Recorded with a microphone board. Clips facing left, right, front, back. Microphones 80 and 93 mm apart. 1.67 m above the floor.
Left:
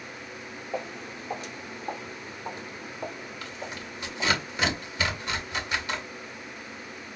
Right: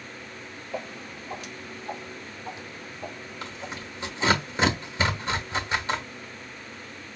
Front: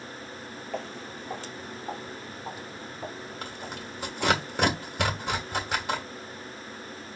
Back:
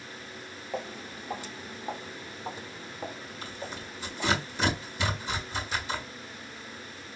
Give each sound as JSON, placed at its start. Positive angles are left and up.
{"t": 0.7, "sound": "footsteps", "azimuth_deg": 105, "distance_m": 1.8}
{"t": 3.4, "sound": "tearing paper", "azimuth_deg": -30, "distance_m": 1.4}